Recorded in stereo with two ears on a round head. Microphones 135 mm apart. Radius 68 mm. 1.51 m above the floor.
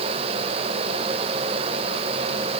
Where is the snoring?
No snoring in this recording.